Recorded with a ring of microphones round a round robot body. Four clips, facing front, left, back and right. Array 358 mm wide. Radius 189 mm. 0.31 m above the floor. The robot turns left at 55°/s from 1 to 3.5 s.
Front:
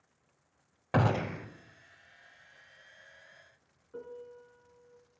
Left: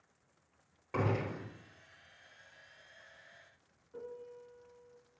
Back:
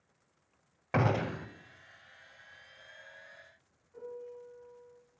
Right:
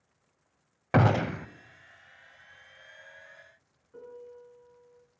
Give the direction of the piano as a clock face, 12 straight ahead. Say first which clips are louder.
Right 1 dB, back 1 dB; 12 o'clock.